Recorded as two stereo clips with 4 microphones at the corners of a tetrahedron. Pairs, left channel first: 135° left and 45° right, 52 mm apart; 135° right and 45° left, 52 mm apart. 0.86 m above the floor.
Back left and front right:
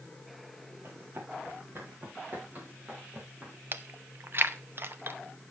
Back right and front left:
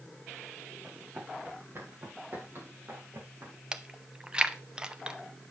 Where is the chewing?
25° right, 0.7 m.